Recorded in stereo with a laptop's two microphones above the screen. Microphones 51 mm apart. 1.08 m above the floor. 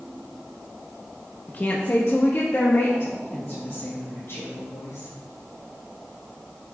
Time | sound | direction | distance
1.5 | a woman speaking | 35° left (ahead or behind) | 0.8 m